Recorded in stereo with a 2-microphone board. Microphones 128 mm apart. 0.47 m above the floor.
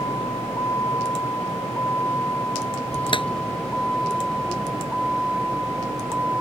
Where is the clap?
40° left (ahead or behind).